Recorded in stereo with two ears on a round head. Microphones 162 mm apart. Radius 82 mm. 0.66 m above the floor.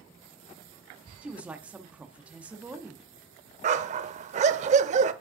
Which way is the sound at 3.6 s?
40° right (ahead or behind).